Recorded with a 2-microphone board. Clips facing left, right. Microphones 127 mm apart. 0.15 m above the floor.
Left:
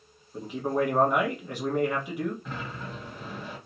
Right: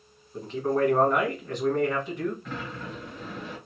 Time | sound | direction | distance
0.3 | a man speaking | 10° left (ahead or behind) | 1.2 m
2.5 | a sliding door | 5° left (ahead or behind) | 1.9 m